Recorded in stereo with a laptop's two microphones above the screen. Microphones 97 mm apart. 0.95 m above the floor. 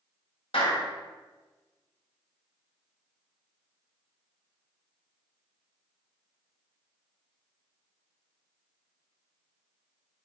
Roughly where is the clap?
Left.